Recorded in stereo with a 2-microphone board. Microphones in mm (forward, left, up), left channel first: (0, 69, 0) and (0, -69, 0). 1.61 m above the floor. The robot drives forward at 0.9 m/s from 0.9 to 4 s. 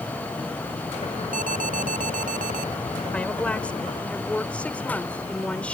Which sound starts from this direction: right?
An alarm, at 1.3 s.